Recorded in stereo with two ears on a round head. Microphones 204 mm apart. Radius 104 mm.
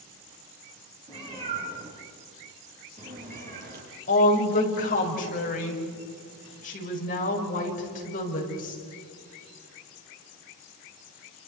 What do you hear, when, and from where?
1.1 s a cat meowing: 25° right (ahead or behind), 7 m; by 3.9 s 40° right (ahead or behind), 5.5 m
4.1 s a woman speaking: 35° left (ahead or behind), 5.5 m